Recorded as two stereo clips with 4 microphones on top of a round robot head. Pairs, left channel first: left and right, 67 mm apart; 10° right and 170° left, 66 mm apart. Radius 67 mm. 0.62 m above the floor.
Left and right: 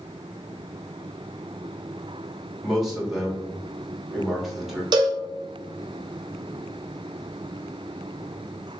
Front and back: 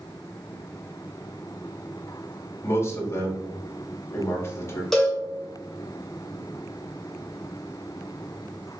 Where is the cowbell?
95° right, 0.7 m.